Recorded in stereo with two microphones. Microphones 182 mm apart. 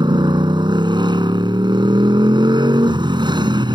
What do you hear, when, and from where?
0.0 s a motorcycle: 25° right (ahead or behind)